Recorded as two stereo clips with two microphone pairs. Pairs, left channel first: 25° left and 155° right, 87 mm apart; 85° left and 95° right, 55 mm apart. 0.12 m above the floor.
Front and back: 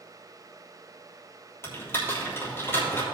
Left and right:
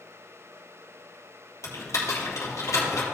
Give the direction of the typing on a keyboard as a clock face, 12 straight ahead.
9 o'clock.